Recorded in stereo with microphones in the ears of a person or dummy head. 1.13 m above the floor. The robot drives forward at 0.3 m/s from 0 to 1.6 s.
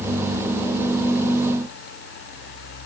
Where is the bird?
No bird in this recording.